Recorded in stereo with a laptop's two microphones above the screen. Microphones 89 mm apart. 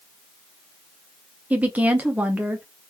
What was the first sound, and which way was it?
A woman speaking, 15° right (ahead or behind).